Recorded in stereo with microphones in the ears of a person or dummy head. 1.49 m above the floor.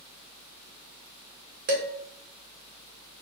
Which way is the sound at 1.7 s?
45° right (ahead or behind).